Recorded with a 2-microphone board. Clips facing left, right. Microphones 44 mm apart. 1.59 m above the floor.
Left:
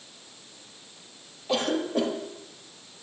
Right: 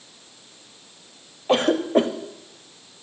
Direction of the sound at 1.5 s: 45° right (ahead or behind).